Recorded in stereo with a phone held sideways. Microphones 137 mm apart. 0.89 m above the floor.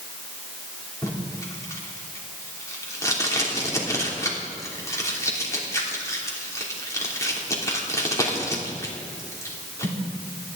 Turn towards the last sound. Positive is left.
turn(degrees=25)  # may be behind; listen again after turning